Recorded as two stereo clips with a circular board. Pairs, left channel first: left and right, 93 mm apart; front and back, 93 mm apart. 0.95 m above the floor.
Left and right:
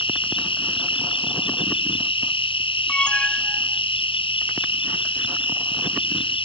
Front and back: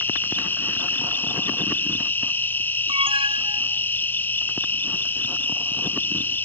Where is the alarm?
170° left.